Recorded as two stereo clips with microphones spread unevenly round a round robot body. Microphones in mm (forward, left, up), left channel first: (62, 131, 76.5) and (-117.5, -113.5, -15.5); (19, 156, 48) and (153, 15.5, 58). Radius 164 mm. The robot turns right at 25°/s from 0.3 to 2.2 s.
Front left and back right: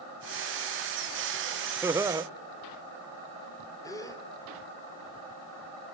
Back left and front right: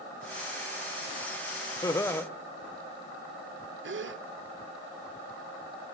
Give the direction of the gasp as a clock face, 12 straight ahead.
1 o'clock.